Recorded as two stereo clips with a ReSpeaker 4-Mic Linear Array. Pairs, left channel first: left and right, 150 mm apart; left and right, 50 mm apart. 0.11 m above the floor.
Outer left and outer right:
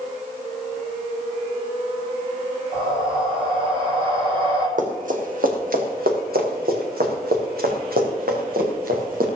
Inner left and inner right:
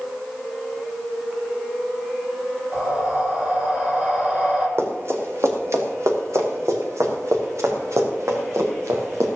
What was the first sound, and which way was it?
Breathing, 30° right (ahead or behind).